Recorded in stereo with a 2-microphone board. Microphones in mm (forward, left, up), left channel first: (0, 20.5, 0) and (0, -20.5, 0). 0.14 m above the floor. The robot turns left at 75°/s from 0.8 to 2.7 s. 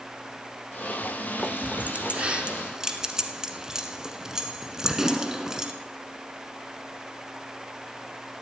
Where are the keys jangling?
25° right (ahead or behind), 1.0 m; by 5.7 s 15° right (ahead or behind), 1.0 m.